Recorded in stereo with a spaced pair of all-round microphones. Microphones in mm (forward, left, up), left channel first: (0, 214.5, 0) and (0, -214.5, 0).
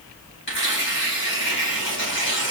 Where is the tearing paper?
25° left (ahead or behind), 2 m.